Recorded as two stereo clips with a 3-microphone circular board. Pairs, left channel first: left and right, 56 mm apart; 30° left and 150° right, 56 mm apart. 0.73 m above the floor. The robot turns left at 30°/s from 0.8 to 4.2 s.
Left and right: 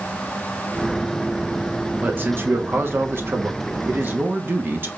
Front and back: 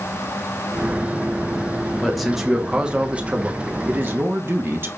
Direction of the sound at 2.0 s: 55° right.